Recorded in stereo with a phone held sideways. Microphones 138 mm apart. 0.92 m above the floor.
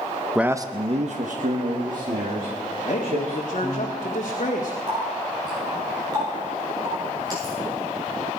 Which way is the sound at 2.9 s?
55° left (ahead or behind).